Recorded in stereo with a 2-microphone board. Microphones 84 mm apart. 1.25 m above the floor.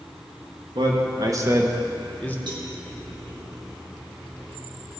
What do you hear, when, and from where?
0.8 s a man speaking: 65° right (ahead or behind), 1.6 m; by 2.4 s 25° left (ahead or behind), 1.0 m
2.5 s a cowbell: 70° right (ahead or behind), 1.4 m